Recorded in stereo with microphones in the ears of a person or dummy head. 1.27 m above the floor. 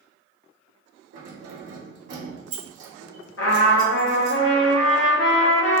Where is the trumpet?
70° left (ahead or behind), 0.8 m.